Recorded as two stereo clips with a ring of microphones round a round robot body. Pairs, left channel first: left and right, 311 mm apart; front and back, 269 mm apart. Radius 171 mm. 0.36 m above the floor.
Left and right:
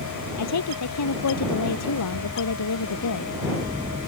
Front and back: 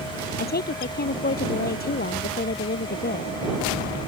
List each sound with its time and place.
0.4 s a woman speaking: 55° left